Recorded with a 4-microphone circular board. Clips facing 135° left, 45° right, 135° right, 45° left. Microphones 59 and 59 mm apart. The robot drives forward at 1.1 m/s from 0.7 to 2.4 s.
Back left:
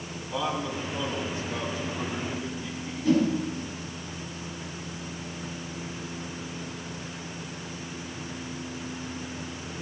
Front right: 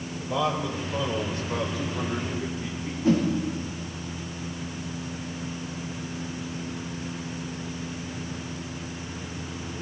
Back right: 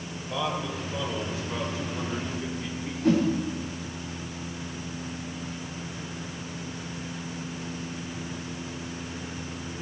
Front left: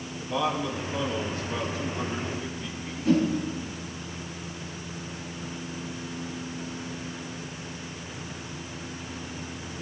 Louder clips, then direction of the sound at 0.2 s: Front right 3 dB, front left 3 dB; 45° right.